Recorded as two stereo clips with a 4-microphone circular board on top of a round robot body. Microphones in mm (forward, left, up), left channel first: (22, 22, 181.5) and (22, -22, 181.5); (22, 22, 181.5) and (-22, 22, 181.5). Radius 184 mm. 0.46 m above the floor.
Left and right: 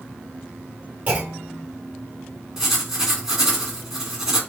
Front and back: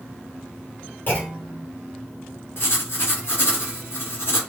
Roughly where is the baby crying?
I don't hear a baby crying.